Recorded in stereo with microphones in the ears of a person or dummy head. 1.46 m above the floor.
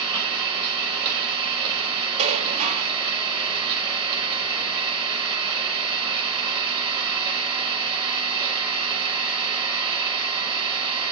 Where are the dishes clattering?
35° right (ahead or behind), 1.8 m.